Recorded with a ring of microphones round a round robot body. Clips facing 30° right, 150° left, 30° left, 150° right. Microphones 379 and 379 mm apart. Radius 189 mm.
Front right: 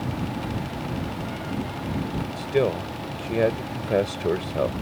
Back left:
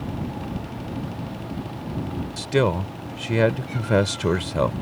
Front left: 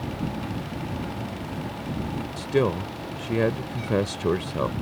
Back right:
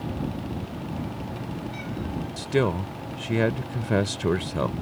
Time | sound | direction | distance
2.4 | a man speaking | 135° left | ?